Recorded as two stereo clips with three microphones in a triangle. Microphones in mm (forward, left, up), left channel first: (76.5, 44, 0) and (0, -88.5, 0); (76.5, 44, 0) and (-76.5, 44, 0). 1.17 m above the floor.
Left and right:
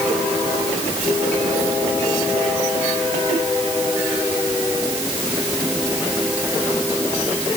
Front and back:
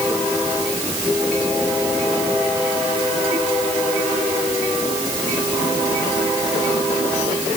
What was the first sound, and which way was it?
Only background noise.